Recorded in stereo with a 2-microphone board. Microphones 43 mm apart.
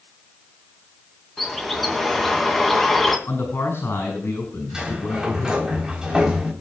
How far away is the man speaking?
About 5 m.